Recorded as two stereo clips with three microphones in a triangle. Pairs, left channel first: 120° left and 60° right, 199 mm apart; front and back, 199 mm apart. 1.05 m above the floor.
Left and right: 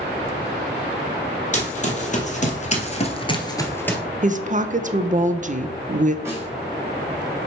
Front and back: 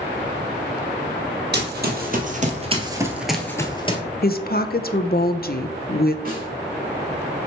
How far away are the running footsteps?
About 2 m.